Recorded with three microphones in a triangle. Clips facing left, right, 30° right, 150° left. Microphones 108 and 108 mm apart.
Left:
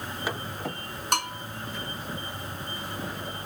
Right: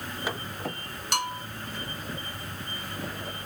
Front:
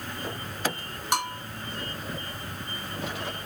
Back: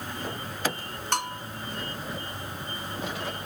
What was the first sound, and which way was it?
A bell, 45° left.